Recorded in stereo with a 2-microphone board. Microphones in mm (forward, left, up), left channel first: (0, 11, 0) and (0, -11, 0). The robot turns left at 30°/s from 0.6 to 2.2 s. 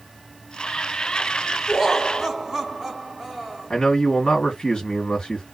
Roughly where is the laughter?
Centre.